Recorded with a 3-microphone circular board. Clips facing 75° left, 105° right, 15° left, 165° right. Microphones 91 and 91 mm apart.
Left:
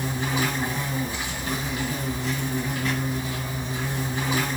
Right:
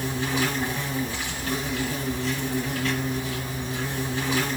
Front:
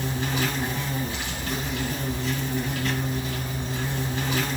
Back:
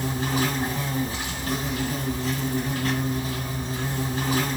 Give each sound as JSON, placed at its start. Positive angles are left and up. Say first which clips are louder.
{"t": 0.0, "sound": "an insect", "louder": "even, back 2 dB", "azimuth_deg": 150, "distance_m": 4.0}